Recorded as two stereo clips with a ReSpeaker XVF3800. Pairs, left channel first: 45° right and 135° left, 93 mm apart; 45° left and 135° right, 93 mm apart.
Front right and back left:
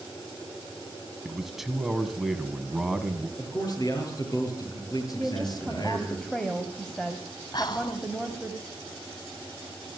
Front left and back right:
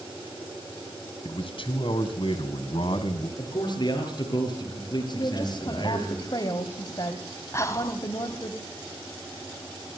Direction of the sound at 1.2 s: 50° left.